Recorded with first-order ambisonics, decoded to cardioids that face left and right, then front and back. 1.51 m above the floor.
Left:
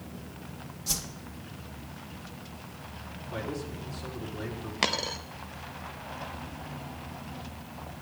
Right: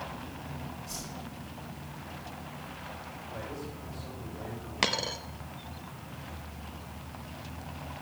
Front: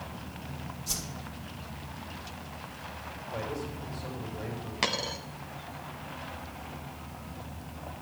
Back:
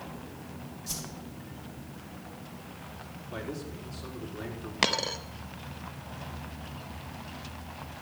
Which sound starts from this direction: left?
A whoosh, at 0.9 s.